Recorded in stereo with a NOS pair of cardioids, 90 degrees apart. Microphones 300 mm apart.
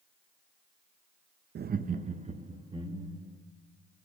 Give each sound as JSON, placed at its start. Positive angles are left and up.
{"t": 1.6, "sound": "laughter", "azimuth_deg": -35, "distance_m": 0.5}